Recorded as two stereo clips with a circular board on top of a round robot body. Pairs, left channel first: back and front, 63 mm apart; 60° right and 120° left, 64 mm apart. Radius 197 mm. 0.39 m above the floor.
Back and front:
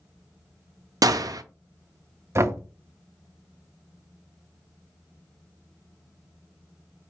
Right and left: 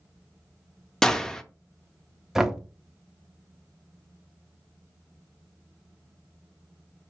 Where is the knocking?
35° left, 0.7 m.